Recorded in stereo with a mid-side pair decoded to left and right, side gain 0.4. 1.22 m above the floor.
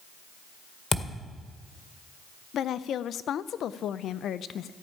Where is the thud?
35° left, 2.0 m.